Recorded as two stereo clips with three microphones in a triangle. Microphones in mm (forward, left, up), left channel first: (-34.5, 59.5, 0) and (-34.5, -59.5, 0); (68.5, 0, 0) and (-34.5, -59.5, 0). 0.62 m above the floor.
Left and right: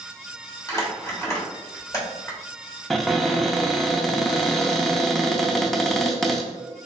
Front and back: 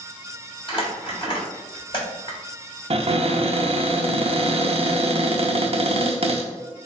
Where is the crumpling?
40° left, 1.2 m.